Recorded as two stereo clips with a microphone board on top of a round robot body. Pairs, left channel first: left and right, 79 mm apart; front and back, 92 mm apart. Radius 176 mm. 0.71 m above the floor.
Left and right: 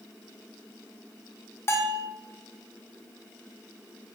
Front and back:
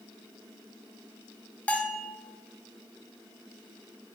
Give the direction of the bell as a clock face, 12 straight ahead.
10 o'clock.